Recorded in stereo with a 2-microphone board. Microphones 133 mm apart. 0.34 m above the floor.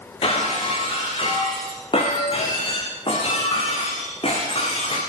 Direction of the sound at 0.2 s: 45° left (ahead or behind).